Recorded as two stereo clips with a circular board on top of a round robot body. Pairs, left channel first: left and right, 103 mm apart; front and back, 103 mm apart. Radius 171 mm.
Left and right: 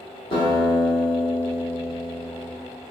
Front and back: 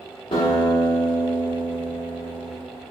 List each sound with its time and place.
0.3 s a guitar: 40° left, 1.2 m